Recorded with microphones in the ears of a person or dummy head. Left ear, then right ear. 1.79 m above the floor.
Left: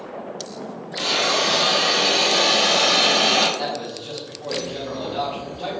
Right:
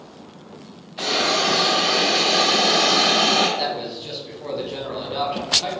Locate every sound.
1.0 s a hiss: 10° right (ahead or behind), 1.8 m
3.6 s a man speaking: 45° right (ahead or behind), 1.6 m